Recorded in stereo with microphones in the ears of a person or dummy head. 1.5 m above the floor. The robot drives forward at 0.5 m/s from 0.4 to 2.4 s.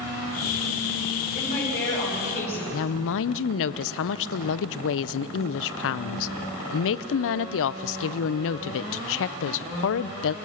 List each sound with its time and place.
1.4 s a woman speaking: 45° left (ahead or behind), 8 m
2.7 s a woman speaking: 70° left (ahead or behind), 0.6 m